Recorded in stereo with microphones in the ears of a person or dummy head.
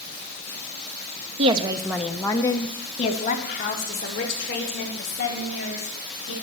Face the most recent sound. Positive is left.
turn(degrees=60)  # may be behind; listen again after turning